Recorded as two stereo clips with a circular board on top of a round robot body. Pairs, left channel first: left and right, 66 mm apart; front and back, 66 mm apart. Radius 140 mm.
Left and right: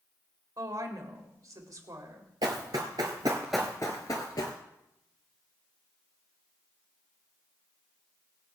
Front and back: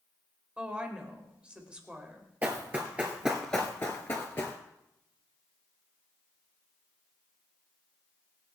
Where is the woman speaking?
105° right, 2.5 m.